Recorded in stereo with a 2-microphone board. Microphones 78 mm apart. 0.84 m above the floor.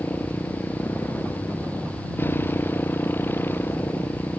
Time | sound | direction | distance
0.0 | a motorcycle | 25° left (ahead or behind) | ?